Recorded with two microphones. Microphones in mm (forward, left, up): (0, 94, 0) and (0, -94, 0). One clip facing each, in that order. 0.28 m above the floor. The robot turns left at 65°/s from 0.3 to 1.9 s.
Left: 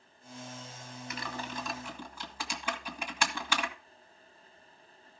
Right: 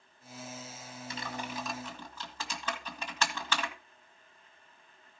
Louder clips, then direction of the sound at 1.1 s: Even; 30° right (ahead or behind).